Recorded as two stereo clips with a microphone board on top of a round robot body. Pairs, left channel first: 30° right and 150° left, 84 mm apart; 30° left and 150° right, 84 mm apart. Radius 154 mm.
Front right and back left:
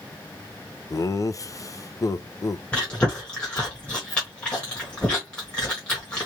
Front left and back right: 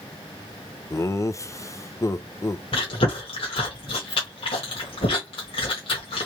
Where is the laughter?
5° right, 0.7 m.